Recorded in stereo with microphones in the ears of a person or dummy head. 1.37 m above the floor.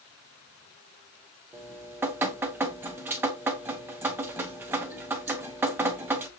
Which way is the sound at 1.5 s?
15° right (ahead or behind).